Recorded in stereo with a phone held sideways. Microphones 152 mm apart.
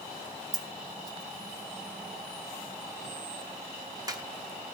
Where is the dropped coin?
25° right (ahead or behind), 1.1 m.